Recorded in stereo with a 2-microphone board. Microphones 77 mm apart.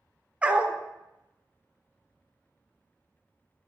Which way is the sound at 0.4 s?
20° right (ahead or behind).